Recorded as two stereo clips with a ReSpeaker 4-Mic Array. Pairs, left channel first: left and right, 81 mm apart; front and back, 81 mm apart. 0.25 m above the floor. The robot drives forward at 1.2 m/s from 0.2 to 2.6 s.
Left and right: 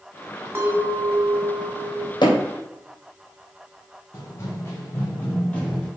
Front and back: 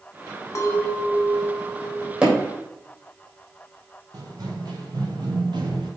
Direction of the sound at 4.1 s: 140° left.